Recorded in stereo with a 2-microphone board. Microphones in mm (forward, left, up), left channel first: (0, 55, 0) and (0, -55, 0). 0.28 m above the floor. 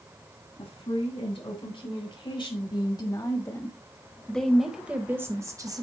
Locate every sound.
0.6 s a woman speaking: 55° left (ahead or behind), 2 m; by 5.8 s 35° right (ahead or behind), 1.0 m